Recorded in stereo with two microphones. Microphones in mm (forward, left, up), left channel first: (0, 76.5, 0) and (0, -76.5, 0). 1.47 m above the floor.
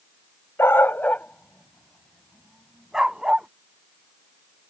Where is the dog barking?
15° left (ahead or behind); by 3.5 s 5° right (ahead or behind).